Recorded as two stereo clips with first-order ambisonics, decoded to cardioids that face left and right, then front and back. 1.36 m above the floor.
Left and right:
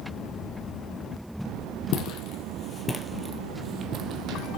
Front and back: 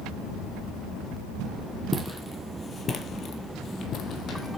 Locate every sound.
1.9 s footsteps: 90° left, 2.0 m; by 4.6 s 55° right, 2.5 m